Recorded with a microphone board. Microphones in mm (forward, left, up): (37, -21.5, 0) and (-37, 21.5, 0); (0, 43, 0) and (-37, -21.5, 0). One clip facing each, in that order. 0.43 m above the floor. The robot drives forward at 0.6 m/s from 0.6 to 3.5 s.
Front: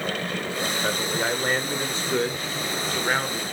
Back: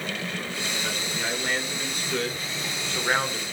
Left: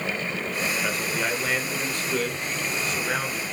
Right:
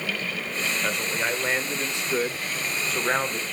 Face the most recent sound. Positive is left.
turn(degrees=-130)